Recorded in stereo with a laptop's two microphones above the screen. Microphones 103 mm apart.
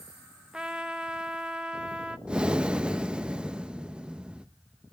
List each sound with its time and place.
0.5 s a trumpet: 10° right (ahead or behind), 1.0 m
2.3 s breathing: 10° right (ahead or behind), 0.6 m